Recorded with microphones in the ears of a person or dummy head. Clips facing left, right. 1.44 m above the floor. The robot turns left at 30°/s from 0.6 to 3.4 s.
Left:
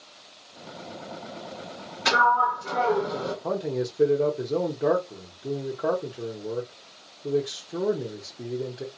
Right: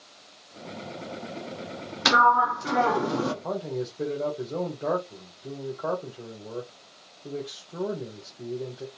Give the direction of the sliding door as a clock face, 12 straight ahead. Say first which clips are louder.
Right 1 dB; 3 o'clock.